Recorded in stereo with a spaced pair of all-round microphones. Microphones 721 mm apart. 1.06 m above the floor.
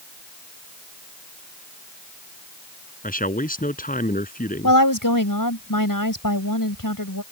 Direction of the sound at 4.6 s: 25° left (ahead or behind).